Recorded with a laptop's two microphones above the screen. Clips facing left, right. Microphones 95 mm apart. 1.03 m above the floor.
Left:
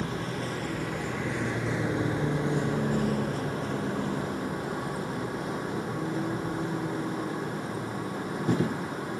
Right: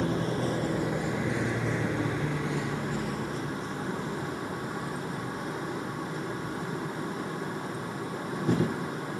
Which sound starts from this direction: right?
A vehicle, at 0.0 s.